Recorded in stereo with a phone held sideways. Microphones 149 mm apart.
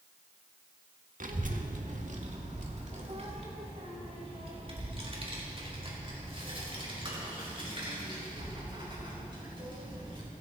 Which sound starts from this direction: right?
A child speaking, at 1.2 s.